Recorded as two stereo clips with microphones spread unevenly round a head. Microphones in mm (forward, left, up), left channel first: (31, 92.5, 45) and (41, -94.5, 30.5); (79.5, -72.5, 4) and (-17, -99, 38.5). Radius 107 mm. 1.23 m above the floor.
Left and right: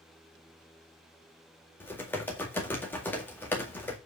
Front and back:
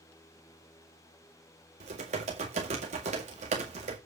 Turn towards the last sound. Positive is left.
turn(degrees=175)